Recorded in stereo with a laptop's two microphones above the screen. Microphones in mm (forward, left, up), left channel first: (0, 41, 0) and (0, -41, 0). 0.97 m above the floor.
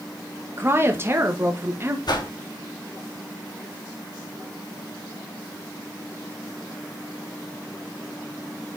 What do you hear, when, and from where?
0.6 s a woman speaking: 30° right (ahead or behind), 1.3 m
2.1 s a whoosh: 60° left (ahead or behind), 1.9 m